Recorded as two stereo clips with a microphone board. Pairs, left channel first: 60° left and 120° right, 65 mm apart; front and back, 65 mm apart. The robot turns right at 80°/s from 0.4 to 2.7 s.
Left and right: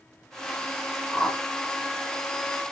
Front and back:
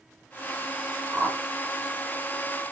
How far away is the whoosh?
About 1.6 m.